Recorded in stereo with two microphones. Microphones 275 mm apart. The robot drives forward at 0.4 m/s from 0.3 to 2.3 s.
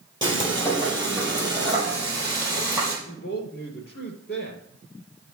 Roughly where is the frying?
Centre.